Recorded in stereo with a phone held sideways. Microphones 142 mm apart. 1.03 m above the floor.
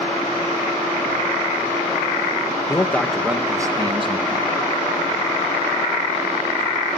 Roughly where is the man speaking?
Left.